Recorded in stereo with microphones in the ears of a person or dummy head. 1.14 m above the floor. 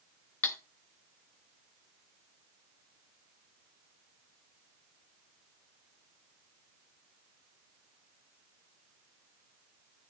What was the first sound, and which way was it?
Cutlery clinking, 10° left (ahead or behind).